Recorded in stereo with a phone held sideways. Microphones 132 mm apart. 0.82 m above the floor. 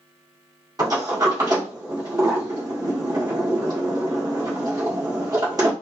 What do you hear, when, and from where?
0.8 s a sliding door: 30° right (ahead or behind), 1.8 m